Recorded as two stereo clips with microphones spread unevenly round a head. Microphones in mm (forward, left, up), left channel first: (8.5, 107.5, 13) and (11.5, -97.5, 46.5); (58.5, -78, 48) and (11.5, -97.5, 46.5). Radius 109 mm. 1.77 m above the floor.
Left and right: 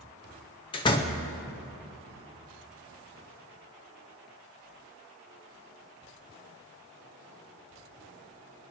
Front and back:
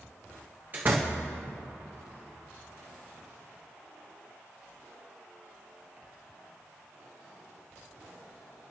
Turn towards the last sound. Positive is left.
turn(degrees=160)